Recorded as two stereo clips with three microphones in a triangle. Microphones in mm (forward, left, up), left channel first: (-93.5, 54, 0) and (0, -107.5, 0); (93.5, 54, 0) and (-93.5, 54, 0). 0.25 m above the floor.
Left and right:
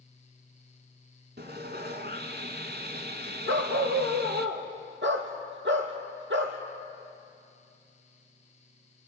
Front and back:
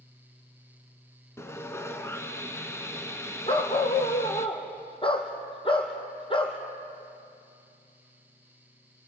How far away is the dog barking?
About 2.5 m.